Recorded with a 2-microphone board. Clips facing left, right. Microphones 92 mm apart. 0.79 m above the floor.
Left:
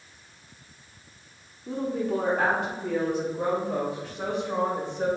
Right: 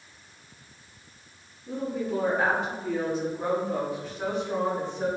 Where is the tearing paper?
No tearing paper in this recording.